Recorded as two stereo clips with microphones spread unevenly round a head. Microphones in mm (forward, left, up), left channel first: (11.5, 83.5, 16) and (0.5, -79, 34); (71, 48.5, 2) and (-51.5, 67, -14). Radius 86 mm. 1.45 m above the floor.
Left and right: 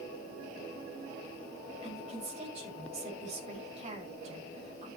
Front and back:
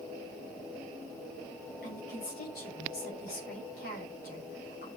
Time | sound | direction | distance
1.8 | a woman speaking | 40° right | 6 m